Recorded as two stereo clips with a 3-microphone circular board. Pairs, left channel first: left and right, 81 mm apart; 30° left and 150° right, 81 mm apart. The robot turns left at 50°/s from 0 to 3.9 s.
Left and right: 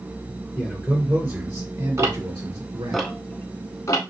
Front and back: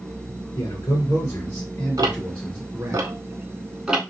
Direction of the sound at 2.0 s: 135° right.